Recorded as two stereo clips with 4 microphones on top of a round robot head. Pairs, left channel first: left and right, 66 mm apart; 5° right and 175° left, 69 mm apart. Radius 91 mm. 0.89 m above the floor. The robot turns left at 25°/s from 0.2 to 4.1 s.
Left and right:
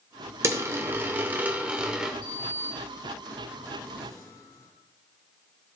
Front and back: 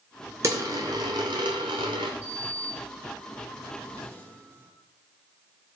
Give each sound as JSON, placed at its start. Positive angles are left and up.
{"t": 0.4, "sound": "a dropped coin", "azimuth_deg": -125, "distance_m": 0.6}
{"t": 2.2, "sound": "a sliding door", "azimuth_deg": 110, "distance_m": 3.0}